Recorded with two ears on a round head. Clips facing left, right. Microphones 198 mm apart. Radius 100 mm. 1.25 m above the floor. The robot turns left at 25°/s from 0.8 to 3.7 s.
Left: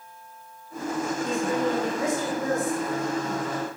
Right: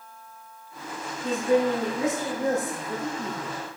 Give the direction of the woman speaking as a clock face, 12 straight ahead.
12 o'clock.